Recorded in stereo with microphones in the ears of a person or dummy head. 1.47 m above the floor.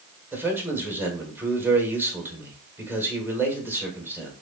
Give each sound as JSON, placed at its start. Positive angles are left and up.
{"t": 0.3, "sound": "a man speaking", "side_deg": -5, "distance_m": 1.3}